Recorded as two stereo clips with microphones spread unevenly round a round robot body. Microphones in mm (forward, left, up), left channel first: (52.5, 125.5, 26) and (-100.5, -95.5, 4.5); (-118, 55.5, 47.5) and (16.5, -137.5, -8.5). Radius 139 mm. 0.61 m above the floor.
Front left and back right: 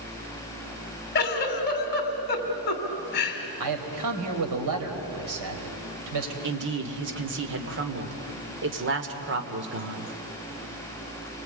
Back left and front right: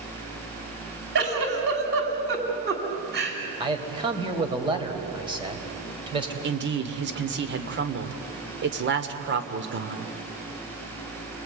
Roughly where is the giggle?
Ahead.